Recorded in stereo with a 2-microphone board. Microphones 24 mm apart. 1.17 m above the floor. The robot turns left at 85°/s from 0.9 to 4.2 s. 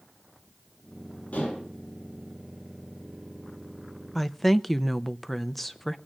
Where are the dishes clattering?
95° left, 9 m; by 1.7 s 65° left, 9 m.